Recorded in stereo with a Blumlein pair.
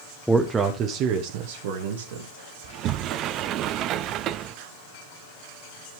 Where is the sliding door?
35° right, 0.5 m.